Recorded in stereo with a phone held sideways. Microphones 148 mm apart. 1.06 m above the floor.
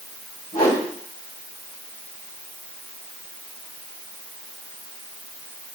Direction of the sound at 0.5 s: 80° left.